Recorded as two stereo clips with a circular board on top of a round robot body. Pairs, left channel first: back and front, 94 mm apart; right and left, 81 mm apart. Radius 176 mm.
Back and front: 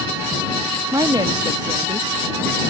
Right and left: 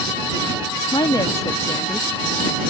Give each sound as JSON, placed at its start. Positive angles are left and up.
{"t": 0.9, "sound": "a woman speaking", "azimuth_deg": -55}